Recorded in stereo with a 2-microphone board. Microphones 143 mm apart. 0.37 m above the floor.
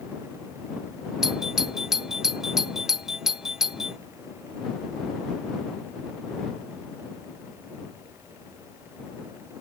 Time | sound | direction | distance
1.2 | a doorbell | 5° right (ahead or behind) | ?